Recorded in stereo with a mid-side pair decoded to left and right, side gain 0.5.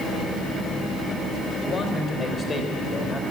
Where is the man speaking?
40° left, 4 m; by 3.2 s 20° left, 3 m.